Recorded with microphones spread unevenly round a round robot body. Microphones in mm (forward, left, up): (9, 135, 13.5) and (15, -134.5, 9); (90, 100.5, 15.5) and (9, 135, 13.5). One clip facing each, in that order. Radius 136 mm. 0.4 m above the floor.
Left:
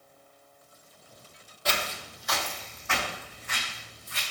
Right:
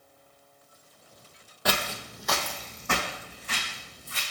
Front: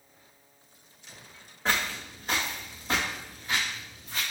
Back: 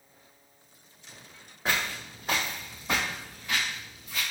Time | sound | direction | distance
1.6 | footsteps | 115° right | 0.9 m